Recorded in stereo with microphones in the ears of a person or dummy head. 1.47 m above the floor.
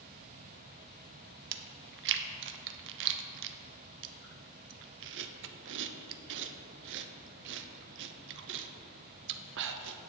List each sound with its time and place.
1.5 s chewing: 65° right (ahead or behind), 0.7 m